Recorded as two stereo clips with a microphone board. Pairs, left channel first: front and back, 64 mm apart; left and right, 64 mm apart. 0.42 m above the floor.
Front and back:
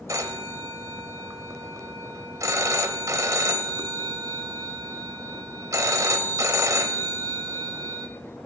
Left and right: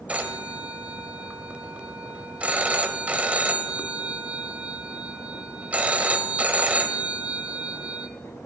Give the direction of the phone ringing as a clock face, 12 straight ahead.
5 o'clock.